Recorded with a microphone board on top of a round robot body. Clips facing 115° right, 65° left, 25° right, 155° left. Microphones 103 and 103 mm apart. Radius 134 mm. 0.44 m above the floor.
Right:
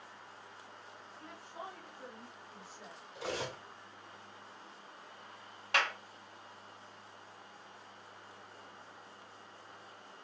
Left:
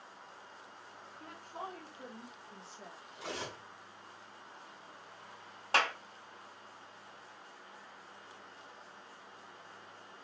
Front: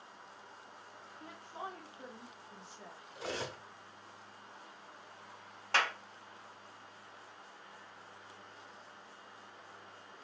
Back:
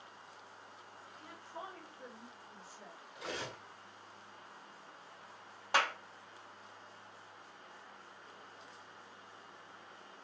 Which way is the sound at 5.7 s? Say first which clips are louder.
Left 2 dB, back 1 dB; 90° left.